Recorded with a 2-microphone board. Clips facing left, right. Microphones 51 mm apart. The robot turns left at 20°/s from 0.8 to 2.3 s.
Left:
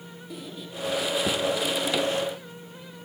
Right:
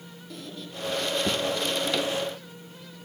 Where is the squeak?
10° left (ahead or behind), 1.7 m; by 2.2 s 15° right (ahead or behind), 1.7 m.